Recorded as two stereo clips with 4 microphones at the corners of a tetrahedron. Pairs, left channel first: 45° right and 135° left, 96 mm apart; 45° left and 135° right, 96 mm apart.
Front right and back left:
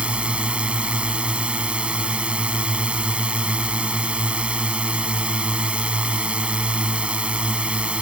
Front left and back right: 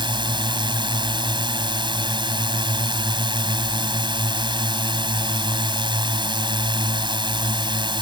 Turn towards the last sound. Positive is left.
turn(degrees=-150)